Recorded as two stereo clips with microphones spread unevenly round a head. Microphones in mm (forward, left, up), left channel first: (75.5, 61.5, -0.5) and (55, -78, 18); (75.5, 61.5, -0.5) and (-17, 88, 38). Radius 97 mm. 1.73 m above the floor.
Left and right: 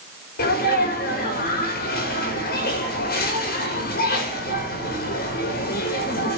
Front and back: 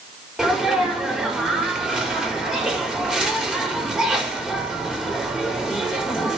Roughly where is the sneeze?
Left.